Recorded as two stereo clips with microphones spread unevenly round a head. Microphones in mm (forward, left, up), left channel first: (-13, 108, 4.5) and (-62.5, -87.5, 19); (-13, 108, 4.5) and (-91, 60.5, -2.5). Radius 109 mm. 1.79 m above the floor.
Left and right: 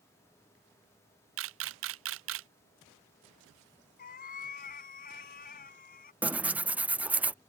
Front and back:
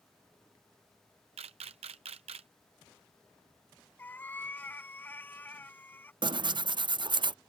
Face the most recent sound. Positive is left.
turn(degrees=175)